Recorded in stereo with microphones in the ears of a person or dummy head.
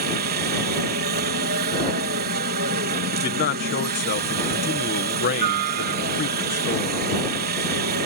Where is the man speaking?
45° left (ahead or behind).